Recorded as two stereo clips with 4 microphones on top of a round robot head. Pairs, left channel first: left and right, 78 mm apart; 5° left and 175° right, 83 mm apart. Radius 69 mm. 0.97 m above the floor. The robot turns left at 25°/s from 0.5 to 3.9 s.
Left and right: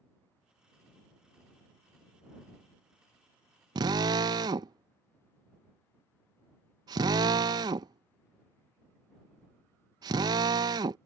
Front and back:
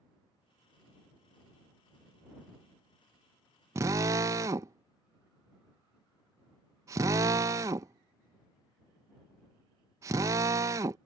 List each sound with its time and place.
3.8 s a drill: 120° right